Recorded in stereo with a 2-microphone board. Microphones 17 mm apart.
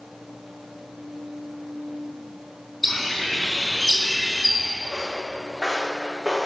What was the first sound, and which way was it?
A bird, centre (ahead or behind).